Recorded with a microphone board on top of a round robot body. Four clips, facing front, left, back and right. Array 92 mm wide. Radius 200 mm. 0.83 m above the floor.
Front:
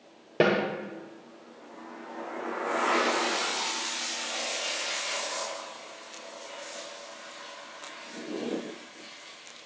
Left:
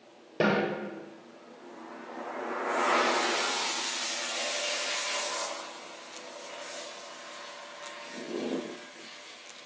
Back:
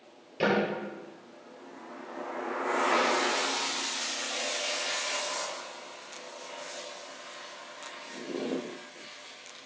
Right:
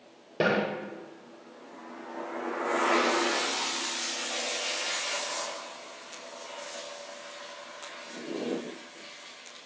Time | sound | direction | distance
0.4 | a snare drum | 5° left | 6.5 m